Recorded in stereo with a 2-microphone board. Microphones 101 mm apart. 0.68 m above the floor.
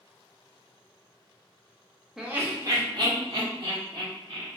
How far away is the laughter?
About 0.7 m.